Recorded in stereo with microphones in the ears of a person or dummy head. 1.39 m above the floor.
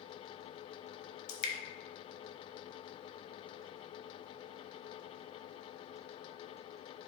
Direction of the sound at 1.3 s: 55° left (ahead or behind).